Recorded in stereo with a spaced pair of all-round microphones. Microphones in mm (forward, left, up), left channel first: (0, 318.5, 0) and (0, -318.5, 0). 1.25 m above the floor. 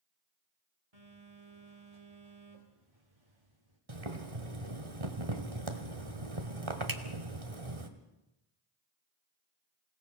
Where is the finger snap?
30° right (ahead or behind), 1.5 m.